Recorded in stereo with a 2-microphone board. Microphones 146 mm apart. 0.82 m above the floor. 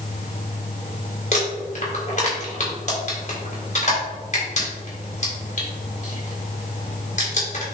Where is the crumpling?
55° left (ahead or behind), 3.5 m.